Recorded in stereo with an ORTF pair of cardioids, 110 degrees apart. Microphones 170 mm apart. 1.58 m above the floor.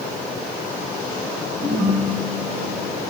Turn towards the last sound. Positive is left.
turn(degrees=-40)